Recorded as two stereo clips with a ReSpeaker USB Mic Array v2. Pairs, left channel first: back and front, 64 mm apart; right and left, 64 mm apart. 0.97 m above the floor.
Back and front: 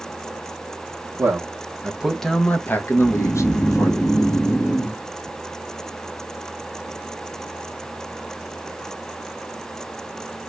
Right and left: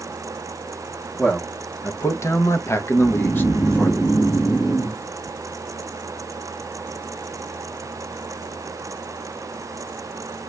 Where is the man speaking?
30° right, 0.7 m; by 3.9 s 155° right, 1.1 m.